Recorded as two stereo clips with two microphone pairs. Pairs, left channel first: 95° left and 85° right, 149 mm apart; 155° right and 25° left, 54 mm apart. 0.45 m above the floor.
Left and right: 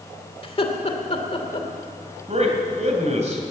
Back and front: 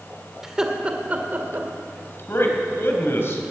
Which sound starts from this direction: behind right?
A man speaking, at 2.3 s.